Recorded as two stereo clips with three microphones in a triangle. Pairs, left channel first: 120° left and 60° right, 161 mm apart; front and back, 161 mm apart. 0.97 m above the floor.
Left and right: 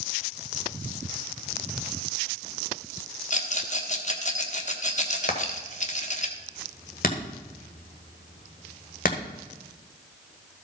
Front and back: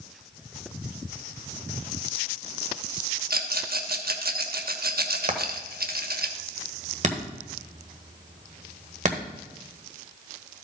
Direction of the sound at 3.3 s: 160° left.